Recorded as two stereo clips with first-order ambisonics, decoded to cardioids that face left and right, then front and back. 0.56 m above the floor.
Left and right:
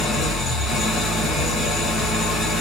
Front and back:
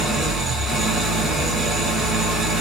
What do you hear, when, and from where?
0.0 s an engine running: 115° left, 1.0 m